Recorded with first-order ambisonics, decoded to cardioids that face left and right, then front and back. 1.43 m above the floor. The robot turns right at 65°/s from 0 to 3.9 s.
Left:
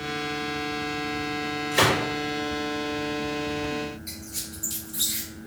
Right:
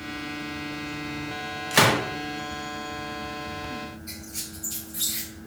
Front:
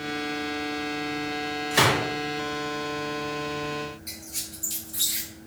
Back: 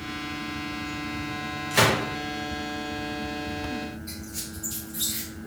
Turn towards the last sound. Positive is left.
turn(degrees=40)